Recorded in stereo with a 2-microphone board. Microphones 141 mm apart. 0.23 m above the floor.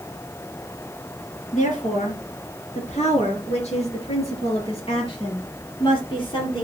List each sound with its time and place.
1.5 s a woman speaking: 60° left (ahead or behind), 3.5 m; by 6.6 s 35° left (ahead or behind), 5.5 m